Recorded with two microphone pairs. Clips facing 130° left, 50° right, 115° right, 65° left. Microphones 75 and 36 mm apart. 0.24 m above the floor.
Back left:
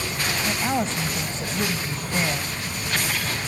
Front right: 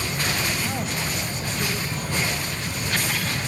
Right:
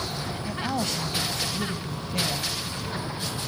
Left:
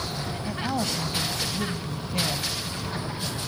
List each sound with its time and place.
0.5 s a woman speaking: 145° left, 1.0 m